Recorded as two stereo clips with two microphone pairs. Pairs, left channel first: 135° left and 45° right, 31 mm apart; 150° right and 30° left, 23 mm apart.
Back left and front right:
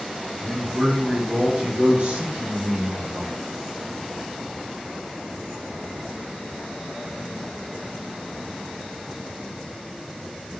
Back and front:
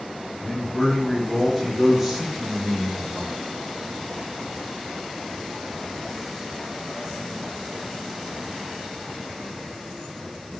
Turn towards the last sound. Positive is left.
turn(degrees=-35)